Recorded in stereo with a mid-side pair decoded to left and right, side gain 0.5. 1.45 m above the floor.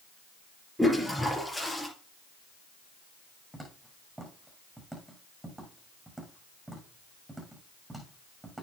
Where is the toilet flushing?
5° left, 4.5 m.